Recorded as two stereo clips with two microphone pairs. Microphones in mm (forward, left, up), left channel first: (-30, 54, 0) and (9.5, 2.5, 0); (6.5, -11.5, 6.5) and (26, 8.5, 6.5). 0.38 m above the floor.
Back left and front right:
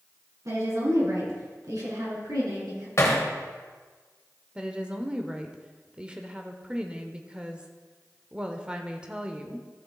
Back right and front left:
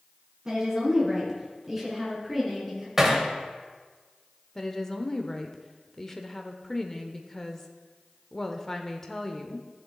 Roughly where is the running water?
No running water in this recording.